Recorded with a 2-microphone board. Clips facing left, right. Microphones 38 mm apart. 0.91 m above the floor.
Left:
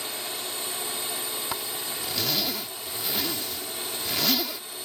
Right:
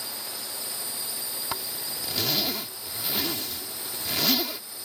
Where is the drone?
60° left (ahead or behind).